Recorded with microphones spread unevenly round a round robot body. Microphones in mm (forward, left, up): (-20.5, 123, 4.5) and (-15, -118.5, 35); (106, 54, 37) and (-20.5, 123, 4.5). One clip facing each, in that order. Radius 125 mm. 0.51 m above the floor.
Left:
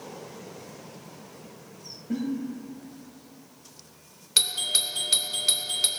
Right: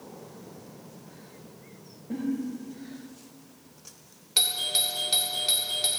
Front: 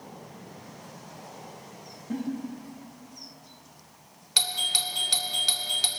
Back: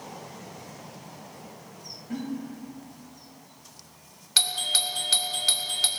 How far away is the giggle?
About 3 m.